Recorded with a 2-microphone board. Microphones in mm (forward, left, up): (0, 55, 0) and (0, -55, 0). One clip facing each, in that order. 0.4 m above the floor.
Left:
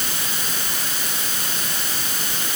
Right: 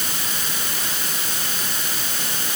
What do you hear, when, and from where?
Only background noise.